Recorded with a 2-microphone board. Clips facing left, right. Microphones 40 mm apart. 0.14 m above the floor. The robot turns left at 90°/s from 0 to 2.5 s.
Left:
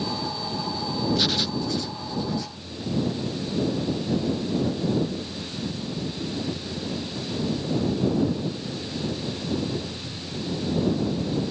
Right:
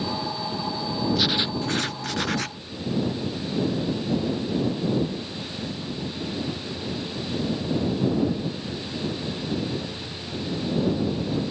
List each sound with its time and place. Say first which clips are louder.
1.1 s writing: right 1 dB; straight ahead; by 2.6 s 125° right